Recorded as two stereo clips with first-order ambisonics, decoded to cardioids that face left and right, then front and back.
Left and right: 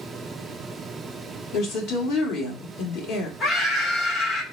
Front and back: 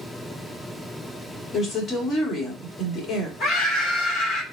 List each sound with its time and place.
1.5 s a woman speaking: 75° left, 1.4 m
3.4 s a scream: 45° left, 1.8 m